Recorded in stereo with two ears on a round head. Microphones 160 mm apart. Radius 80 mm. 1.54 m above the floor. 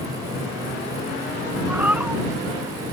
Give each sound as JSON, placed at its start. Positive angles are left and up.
{"t": 1.7, "sound": "a cat meowing", "side_deg": -10}